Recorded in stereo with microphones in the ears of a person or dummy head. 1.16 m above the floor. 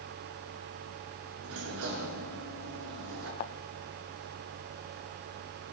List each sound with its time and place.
1.4 s a sliding door: 75° right (ahead or behind), 6 m
3.4 s a thud: 25° left (ahead or behind), 1.1 m